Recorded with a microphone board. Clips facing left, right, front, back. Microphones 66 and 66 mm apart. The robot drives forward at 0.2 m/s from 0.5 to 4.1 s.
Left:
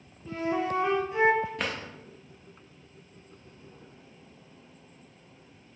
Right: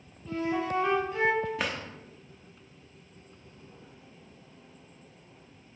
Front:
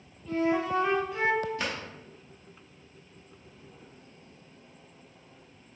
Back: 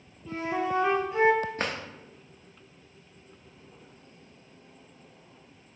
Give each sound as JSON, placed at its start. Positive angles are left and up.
{"t": 0.3, "sound": "a flute", "azimuth_deg": 135, "distance_m": 0.9}
{"t": 1.6, "sound": "a drawer", "azimuth_deg": -175, "distance_m": 0.6}